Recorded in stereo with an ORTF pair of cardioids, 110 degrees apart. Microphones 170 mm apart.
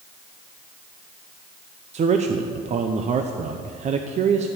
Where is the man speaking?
40° right, 0.8 m.